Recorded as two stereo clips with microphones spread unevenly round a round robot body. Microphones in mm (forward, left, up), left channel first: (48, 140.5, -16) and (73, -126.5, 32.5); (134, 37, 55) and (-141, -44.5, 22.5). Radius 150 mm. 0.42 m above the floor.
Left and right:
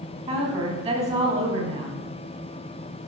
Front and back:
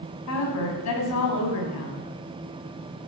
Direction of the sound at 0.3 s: 15° right.